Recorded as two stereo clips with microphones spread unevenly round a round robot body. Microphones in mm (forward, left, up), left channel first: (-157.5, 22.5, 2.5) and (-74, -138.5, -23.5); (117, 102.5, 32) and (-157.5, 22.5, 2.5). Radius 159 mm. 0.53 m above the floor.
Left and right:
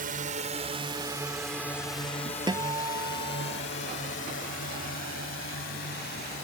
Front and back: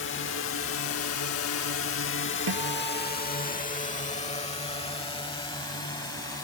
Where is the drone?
35° right; by 6.5 s 95° left.